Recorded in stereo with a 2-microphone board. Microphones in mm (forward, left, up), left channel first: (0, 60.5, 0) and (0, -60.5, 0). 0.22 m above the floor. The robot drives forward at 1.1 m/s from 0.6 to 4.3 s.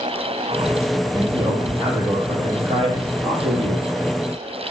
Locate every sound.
1.1 s a man speaking: 40° right (ahead or behind), 6.5 m; by 3.9 s 60° right (ahead or behind), 4.5 m